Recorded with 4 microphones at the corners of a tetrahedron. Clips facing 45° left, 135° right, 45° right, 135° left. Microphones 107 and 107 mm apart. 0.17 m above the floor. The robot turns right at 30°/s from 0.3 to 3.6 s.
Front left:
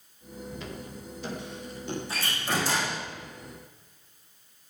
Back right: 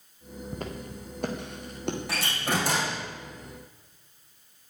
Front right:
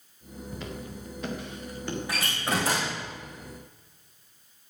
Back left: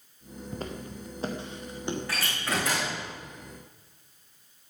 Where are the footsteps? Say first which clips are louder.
Back right 5 dB, back left 2 dB; straight behind, 3 m; by 2.6 s 140° right, 4.5 m.